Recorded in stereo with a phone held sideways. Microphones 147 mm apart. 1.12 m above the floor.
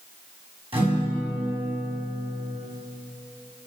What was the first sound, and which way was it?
A guitar, 40° right (ahead or behind).